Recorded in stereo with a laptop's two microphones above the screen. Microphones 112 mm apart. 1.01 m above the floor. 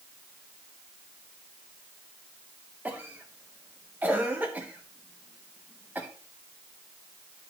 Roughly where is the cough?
Centre.